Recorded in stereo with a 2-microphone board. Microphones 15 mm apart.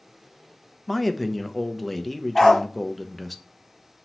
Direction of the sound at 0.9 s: Centre (ahead or behind).